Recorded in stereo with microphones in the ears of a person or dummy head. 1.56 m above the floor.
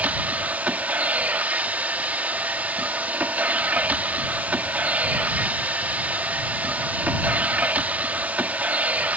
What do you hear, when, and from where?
0.0 s a machine running: 10° right (ahead or behind)